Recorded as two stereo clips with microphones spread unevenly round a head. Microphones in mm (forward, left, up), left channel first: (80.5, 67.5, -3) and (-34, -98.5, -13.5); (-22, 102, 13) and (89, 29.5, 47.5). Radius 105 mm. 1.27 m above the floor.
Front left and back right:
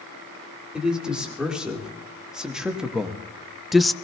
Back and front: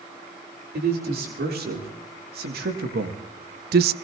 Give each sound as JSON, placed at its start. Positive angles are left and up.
{"t": 0.7, "sound": "a man speaking", "azimuth_deg": -40, "distance_m": 4.5}